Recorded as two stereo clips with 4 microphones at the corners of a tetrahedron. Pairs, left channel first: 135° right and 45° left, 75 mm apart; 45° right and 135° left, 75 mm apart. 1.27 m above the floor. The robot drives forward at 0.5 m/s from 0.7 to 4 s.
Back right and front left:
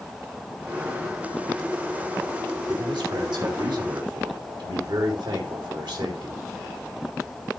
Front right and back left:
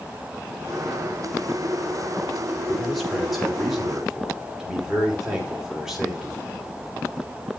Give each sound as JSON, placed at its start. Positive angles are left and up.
{"t": 2.7, "sound": "a man speaking", "azimuth_deg": 45, "distance_m": 3.5}